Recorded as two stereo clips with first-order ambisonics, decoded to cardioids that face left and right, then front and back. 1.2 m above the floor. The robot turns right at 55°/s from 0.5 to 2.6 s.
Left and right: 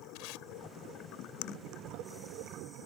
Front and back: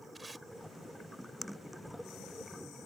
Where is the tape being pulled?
100° left.